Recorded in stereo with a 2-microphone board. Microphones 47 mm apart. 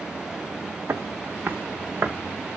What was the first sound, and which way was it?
Footsteps, 75° right (ahead or behind).